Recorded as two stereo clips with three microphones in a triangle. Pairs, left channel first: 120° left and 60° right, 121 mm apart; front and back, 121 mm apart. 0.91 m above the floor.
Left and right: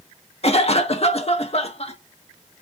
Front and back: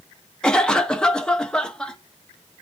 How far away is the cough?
About 0.9 m.